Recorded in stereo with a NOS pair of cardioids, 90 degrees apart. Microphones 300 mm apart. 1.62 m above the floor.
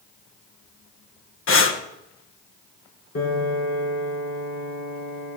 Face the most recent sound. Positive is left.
turn(degrees=55)